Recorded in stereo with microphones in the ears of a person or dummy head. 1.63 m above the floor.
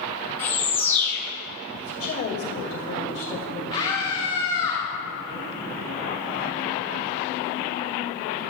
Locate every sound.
0.4 s a bird: 15° left (ahead or behind), 4 m
1.8 s a woman speaking: 50° left (ahead or behind), 2.5 m
3.7 s a scream: 25° left (ahead or behind), 4.5 m